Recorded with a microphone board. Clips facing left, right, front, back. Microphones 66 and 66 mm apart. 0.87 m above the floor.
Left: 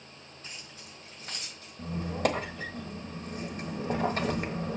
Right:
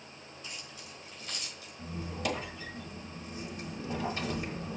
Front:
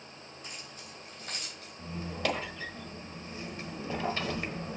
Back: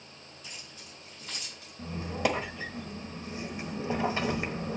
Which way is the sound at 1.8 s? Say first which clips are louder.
Left 7 dB, back 4 dB; 110° left.